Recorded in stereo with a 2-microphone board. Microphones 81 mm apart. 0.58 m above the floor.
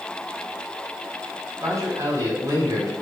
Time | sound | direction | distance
1.6 | a man speaking | 45° right (ahead or behind) | 5 m